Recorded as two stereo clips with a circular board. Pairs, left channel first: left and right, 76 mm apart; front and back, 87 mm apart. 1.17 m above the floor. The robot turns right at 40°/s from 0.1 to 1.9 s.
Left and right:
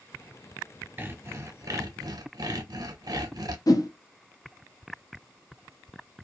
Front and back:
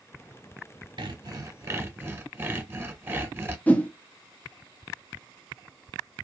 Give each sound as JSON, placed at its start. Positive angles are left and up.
{"t": 1.0, "sound": "sawing", "azimuth_deg": -150, "distance_m": 0.7}
{"t": 3.7, "sound": "a whoosh", "azimuth_deg": 70, "distance_m": 0.5}